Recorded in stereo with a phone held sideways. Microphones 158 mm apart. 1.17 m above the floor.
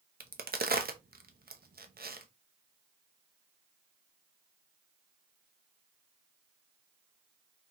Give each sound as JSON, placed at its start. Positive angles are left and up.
{"t": 0.2, "sound": "a crack", "side_deg": -75, "distance_m": 0.6}